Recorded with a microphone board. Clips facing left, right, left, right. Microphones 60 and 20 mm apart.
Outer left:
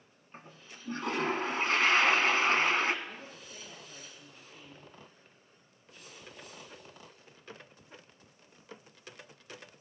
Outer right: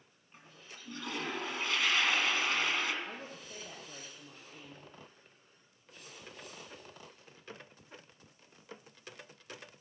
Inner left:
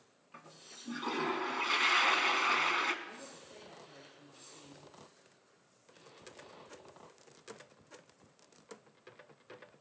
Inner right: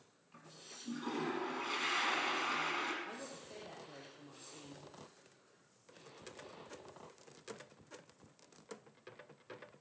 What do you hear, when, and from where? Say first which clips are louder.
0.3 s a toilet flushing: outer left 3 dB, inner left 1 dB; 40° left (ahead or behind), 1.7 m
3.0 s a woman speaking: outer right 1 dB, inner right 2 dB; 40° right (ahead or behind), 4.5 m